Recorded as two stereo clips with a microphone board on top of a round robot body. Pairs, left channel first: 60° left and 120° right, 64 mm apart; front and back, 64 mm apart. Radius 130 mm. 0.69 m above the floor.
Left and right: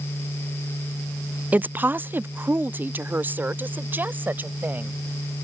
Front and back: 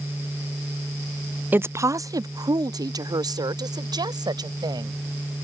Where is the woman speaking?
155° right; by 5.0 s straight behind.